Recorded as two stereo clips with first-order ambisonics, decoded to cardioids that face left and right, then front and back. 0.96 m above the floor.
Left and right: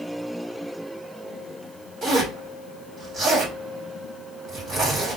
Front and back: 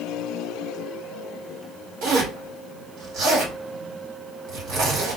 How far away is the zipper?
About 1.4 m.